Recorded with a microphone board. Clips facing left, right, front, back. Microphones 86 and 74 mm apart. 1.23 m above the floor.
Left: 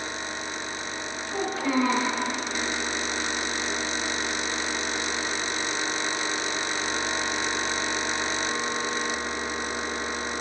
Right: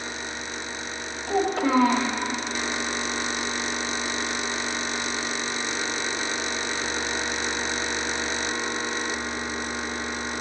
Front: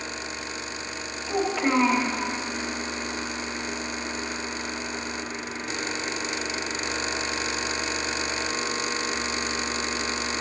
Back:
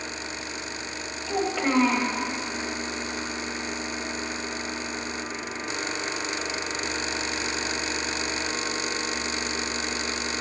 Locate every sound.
1.3 s a child speaking: 95° right, 1.3 m